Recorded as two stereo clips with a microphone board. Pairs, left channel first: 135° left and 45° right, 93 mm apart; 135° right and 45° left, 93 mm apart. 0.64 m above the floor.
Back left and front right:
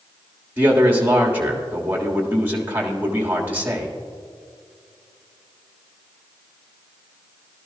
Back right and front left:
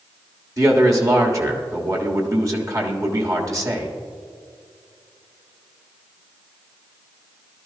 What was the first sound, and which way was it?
A man speaking, 15° left.